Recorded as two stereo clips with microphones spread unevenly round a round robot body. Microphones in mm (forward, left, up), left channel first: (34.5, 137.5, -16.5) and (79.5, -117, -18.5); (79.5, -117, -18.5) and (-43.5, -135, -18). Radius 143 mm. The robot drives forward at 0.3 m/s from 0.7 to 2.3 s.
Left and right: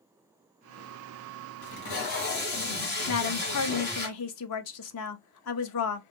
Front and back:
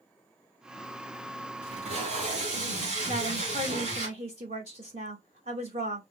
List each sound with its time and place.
1.6 s tape being pulled: 150° left, 1.4 m; by 4.1 s 155° left, 1.6 m
3.1 s a woman speaking: 135° left, 0.5 m